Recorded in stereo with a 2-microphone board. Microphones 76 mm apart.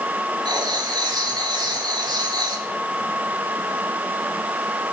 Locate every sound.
0.5 s writing: 75° right (ahead or behind), 3.5 m